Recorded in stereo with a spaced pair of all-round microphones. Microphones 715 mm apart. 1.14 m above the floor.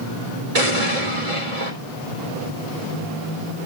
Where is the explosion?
55° right (ahead or behind), 4 m.